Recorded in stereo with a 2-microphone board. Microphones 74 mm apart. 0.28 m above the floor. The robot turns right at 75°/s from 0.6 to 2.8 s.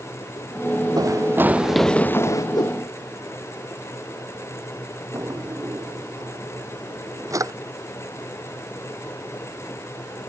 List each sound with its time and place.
1.0 s running footsteps: 65° right (ahead or behind); by 2.4 s 50° left (ahead or behind)
2.5 s a whoosh: 75° left (ahead or behind); by 2.8 s 55° left (ahead or behind)
5.1 s a drawer: 45° right (ahead or behind)